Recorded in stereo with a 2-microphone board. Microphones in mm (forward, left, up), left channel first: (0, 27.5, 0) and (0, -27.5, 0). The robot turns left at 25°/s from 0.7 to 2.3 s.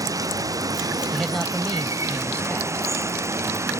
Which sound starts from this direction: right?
Running water, at 0.0 s.